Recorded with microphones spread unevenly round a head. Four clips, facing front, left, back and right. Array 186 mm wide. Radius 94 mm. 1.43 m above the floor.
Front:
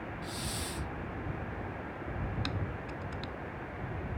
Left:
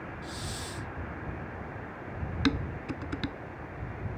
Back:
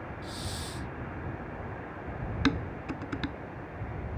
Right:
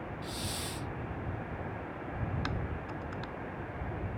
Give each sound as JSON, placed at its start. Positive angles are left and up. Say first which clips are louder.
{"t": 0.2, "sound": "a hiss", "louder": "even, even", "azimuth_deg": -110}
{"t": 2.5, "sound": "dishes clattering", "louder": "left 8 dB, back 8 dB", "azimuth_deg": 135}